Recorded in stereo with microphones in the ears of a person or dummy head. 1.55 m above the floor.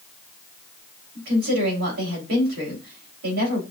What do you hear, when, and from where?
1.1 s a woman speaking: 75° right (ahead or behind), 3 m